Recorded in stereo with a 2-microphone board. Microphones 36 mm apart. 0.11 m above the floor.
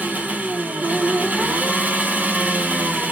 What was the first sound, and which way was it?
An engine running, 50° right (ahead or behind).